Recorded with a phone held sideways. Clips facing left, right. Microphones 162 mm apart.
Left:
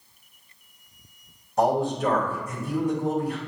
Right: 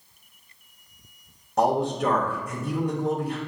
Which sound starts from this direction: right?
A man speaking, at 1.6 s.